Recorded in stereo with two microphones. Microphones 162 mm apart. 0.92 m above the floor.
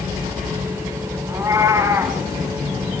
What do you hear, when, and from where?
1.3 s a cat meowing: 15° right (ahead or behind), 4.5 m